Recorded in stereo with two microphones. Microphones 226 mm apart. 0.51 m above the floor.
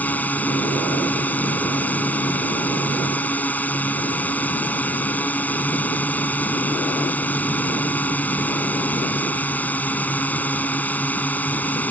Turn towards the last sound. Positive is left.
turn(degrees=5)  # may be behind; listen again after turning